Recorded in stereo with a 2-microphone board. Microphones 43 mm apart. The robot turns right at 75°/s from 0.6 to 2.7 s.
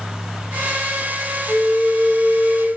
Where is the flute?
20° right, 1.2 m; by 2.7 s 70° left, 1.2 m.